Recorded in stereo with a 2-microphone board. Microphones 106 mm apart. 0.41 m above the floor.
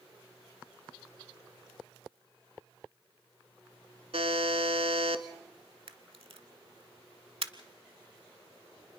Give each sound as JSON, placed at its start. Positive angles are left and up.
{"t": 4.1, "sound": "a buzzer", "side_deg": -75, "distance_m": 1.0}
{"t": 5.9, "sound": "a camera shutter", "side_deg": -65, "distance_m": 0.8}